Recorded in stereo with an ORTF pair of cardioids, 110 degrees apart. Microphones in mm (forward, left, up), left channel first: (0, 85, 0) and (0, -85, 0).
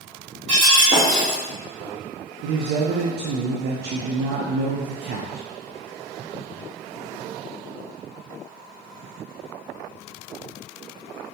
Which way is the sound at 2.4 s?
65° right.